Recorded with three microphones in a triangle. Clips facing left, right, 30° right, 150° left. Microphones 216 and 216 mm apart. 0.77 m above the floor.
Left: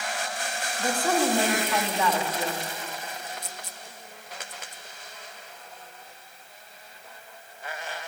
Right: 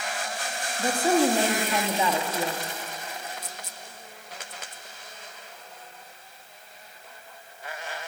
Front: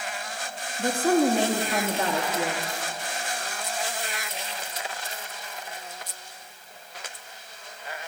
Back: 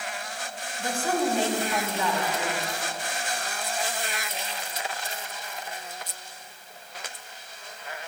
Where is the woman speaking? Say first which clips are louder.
Right 3 dB, front 6 dB; 25° right, 1.4 m.